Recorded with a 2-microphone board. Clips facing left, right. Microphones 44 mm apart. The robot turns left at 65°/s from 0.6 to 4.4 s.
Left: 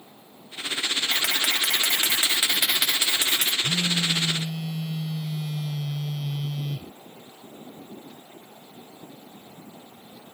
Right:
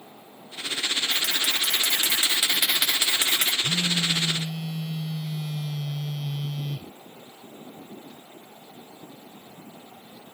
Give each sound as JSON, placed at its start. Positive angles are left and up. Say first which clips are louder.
{"t": 1.1, "sound": "a camera shutter", "louder": "left 1 dB", "azimuth_deg": 105}
{"t": 3.6, "sound": "a phone buzzing", "louder": "even", "azimuth_deg": 60}